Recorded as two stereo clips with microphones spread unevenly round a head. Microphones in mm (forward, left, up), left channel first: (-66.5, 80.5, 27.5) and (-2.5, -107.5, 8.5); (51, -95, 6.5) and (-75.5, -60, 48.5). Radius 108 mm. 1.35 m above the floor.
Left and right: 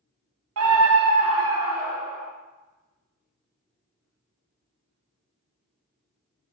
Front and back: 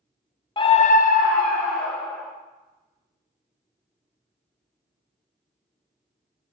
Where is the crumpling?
No crumpling in this recording.